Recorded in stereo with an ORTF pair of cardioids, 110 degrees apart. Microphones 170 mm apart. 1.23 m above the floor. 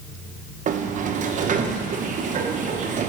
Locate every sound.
0.7 s a sliding door: 50° right, 1.0 m